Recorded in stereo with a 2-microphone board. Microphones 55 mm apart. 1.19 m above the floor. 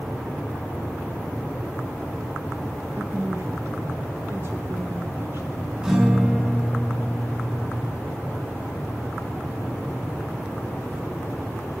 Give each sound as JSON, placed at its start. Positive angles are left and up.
{"t": 3.0, "sound": "a woman speaking", "side_deg": -45, "distance_m": 1.4}
{"t": 5.8, "sound": "a guitar", "side_deg": -15, "distance_m": 10.0}